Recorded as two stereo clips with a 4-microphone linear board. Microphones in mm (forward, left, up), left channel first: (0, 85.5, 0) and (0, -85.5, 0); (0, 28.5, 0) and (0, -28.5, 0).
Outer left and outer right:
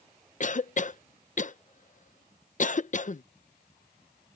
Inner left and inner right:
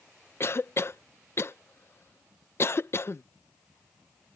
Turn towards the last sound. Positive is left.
turn(degrees=50)  # may be behind; listen again after turning